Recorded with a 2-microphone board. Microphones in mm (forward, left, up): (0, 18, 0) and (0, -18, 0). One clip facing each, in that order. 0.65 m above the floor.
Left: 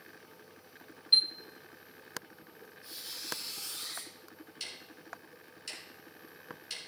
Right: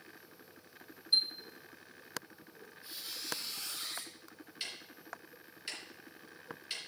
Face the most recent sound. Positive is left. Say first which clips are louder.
# right 1 dB
turn(degrees=-15)  # may be behind; listen again after turning